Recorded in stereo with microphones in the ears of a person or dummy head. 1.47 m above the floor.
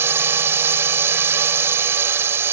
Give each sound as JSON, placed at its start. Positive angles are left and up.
{"t": 0.0, "sound": "a drone", "side_deg": -15}